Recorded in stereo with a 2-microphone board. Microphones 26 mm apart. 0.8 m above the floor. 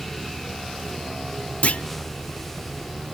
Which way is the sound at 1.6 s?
55° left (ahead or behind).